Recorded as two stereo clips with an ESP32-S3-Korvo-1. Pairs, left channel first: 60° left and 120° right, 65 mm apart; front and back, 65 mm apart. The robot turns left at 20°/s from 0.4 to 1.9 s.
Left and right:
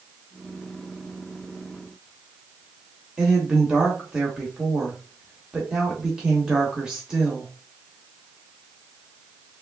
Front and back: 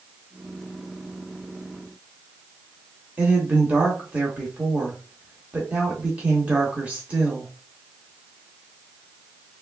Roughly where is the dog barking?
No dog barking in this recording.